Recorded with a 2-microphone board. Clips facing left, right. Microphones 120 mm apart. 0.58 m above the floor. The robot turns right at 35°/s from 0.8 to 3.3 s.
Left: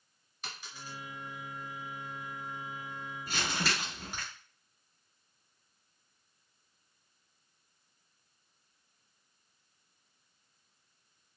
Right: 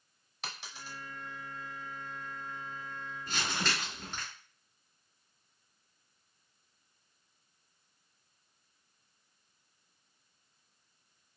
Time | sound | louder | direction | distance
0.4 | a dropped coin | right 1 dB | 75° right (ahead or behind) | 0.7 m
3.3 | crumpling | left 1 dB | 10° left (ahead or behind) | 1.3 m